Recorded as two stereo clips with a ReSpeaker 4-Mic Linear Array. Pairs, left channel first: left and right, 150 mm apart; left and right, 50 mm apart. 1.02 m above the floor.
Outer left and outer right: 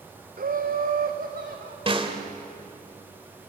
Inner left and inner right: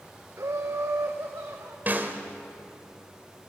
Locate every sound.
0.4 s laughter: 70° right (ahead or behind), 0.6 m
1.9 s a snare drum: 35° right (ahead or behind), 1.7 m